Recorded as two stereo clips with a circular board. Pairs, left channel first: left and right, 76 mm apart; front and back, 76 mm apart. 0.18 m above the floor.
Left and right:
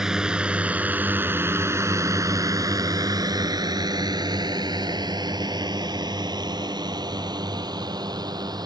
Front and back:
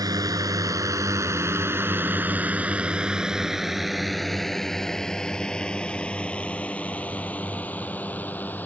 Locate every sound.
0.0 s a drone: 170° right; by 8.7 s 65° right